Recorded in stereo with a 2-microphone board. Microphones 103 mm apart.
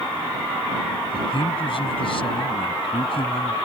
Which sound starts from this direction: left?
A man speaking, at 1.1 s.